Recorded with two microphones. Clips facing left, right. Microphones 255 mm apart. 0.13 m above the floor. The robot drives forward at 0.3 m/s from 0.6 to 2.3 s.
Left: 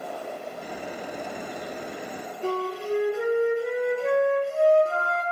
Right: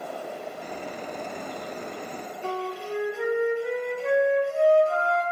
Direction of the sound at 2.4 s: 40° left (ahead or behind).